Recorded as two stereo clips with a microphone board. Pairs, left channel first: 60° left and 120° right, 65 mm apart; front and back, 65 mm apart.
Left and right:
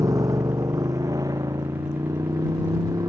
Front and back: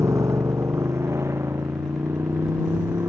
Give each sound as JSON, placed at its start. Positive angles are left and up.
{"t": 0.0, "sound": "a motorcycle", "azimuth_deg": -140}